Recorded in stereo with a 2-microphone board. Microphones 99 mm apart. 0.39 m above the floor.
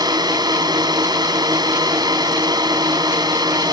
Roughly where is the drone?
Right.